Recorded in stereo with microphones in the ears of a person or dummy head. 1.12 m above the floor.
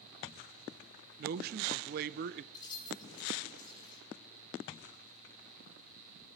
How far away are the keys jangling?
About 9 m.